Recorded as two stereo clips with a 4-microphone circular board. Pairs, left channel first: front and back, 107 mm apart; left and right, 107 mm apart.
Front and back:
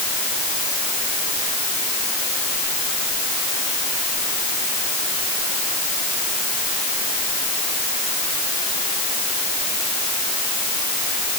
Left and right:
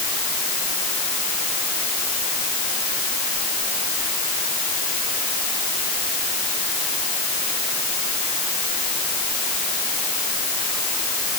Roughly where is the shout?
I don't hear a shout.